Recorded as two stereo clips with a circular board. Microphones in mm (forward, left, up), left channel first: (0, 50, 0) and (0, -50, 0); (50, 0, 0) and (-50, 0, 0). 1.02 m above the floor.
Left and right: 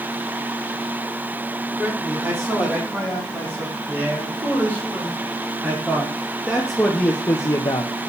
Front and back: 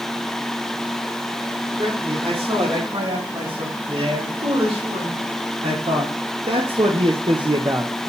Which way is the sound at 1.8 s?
155° right.